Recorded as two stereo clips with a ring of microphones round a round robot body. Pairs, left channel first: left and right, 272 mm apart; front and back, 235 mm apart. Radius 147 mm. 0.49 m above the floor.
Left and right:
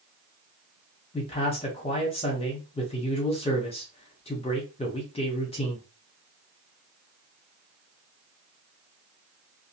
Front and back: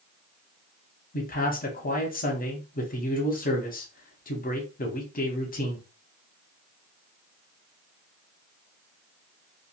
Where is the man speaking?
30° left, 0.9 m.